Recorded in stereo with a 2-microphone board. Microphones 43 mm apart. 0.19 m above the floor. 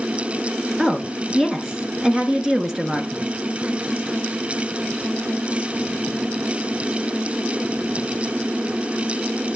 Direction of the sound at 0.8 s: 15° right (ahead or behind).